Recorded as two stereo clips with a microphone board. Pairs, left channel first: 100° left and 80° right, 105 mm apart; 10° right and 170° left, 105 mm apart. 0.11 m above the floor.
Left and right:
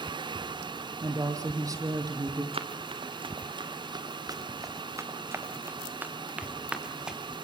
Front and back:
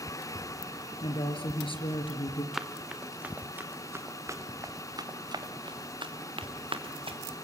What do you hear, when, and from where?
1.0 s a woman speaking: 25° right, 3 m
2.5 s running footsteps: 105° right, 2 m; by 7.2 s 160° right, 3 m